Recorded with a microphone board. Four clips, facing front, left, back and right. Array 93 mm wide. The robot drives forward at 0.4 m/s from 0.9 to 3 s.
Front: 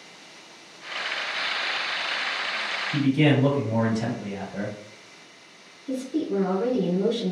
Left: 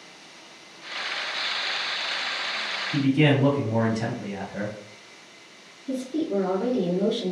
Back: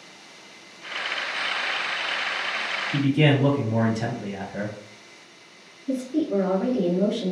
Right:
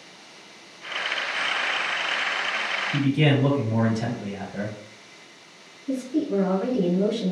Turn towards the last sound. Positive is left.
turn(degrees=-135)